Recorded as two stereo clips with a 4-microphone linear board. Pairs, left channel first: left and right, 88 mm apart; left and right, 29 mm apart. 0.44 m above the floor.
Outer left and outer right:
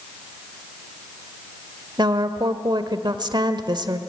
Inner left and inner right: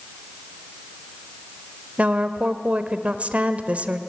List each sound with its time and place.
2.0 s a woman speaking: 50° right (ahead or behind), 1.2 m